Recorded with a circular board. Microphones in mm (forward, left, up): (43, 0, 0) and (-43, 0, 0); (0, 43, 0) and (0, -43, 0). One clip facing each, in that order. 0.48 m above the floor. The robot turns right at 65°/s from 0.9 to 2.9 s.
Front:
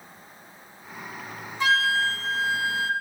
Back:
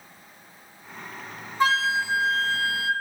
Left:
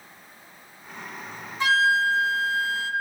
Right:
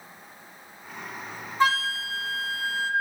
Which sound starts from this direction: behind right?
A flute, at 1.6 s.